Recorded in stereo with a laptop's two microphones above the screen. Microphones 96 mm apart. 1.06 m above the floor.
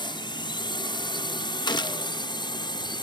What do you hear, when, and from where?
0.0 s a drone: 55° left (ahead or behind); by 3.0 s 50° left (ahead or behind)
1.7 s a gunshot: 50° left (ahead or behind)